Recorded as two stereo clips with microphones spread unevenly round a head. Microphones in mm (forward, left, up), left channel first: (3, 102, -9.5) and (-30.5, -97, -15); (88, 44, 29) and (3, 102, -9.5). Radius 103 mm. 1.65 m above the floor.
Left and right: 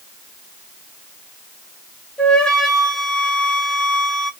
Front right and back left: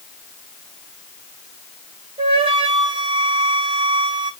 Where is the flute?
155° left, 1.1 m.